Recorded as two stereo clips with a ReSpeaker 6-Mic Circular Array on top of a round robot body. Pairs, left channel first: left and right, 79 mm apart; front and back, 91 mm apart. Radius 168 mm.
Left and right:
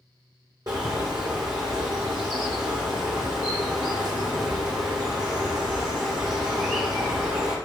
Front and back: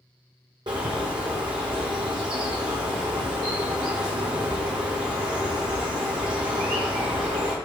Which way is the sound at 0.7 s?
140° right.